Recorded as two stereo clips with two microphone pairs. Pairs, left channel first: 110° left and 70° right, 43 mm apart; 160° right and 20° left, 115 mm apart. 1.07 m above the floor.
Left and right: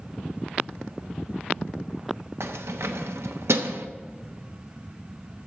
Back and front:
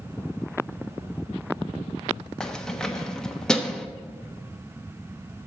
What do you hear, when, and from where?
2.4 s keys jangling: 75° right, 0.9 m